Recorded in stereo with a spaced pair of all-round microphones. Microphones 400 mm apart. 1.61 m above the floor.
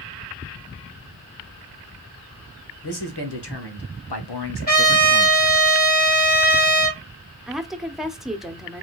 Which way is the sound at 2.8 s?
70° left (ahead or behind).